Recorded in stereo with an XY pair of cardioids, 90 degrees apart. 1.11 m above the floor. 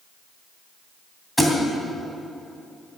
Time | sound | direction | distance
1.4 | a thud | straight ahead | 2.5 m